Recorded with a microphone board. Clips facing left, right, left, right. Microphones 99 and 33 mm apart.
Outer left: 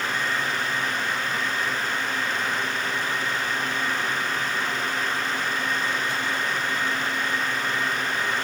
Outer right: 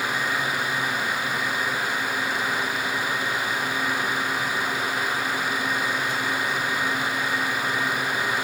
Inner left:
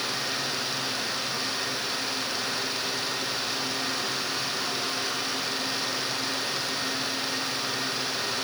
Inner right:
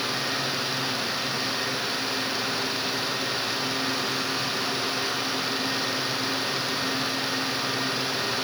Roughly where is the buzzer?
I don't hear a buzzer.